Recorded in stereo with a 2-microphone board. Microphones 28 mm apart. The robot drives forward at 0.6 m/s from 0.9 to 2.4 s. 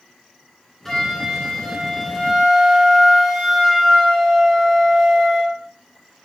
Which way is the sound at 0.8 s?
10° left (ahead or behind).